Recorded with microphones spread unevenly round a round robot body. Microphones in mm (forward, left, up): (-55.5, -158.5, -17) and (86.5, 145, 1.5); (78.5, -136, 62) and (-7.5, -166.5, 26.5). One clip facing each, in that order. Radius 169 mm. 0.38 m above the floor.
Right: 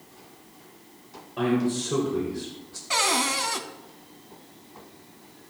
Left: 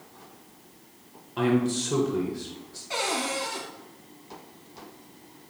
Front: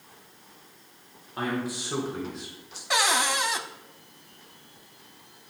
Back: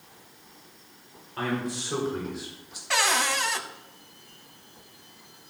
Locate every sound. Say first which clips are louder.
1.4 s a man speaking: even, even; 120° left, 1.7 m; by 2.8 s straight behind, 1.8 m
2.9 s a cupboard door: right 1 dB, front 1 dB; 60° right, 1.2 m